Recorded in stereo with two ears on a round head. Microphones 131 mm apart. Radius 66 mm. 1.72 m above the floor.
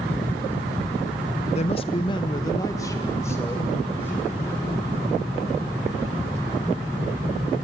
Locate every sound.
1.6 s a man speaking: 45° left (ahead or behind), 0.8 m; by 4.7 s 15° left (ahead or behind), 3.5 m